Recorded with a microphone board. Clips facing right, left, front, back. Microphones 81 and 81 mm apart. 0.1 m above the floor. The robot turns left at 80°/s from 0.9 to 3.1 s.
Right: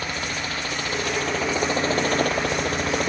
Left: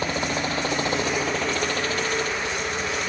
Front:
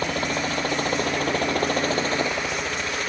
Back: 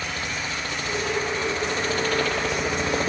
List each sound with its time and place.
0.0 s a helicopter: 30° left; by 3.1 s 130° right